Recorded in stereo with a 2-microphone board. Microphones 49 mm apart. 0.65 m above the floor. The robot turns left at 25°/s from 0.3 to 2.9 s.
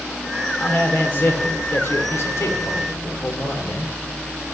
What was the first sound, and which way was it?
A man speaking, 140° left.